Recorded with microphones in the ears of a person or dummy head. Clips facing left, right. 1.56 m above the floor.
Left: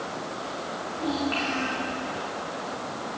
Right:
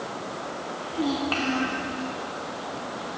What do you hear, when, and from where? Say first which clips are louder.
0.9 s a child speaking: right 2 dB; 55° right (ahead or behind), 1.7 m